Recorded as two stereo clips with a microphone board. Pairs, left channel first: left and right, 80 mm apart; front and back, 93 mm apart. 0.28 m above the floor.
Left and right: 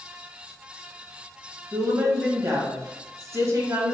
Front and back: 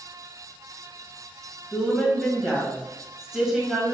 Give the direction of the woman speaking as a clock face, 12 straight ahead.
3 o'clock.